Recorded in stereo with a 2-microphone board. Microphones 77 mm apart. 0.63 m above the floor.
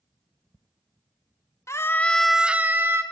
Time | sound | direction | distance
1.7 | a scream | 40° left (ahead or behind) | 0.9 m